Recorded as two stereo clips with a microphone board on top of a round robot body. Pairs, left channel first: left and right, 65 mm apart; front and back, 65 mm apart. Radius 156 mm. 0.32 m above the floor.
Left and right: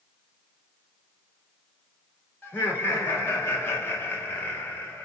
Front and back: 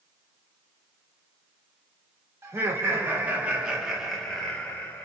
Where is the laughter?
140° left, 1.7 m; by 5.1 s 40° left, 1.3 m.